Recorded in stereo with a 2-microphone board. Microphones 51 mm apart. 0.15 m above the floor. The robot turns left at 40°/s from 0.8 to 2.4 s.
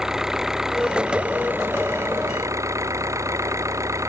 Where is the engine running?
10° right; by 4.1 s 75° right.